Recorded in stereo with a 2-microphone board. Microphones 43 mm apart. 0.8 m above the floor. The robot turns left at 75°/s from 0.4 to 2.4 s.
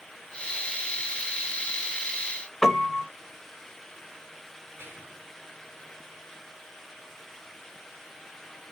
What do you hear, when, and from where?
2.6 s a piano: 5° left (ahead or behind), 0.8 m
4.8 s whispering: 60° right (ahead or behind), 1.9 m